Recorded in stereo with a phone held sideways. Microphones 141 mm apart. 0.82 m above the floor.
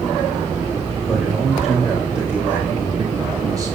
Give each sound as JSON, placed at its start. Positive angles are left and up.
{"t": 1.0, "sound": "a man speaking", "side_deg": 0, "distance_m": 4.0}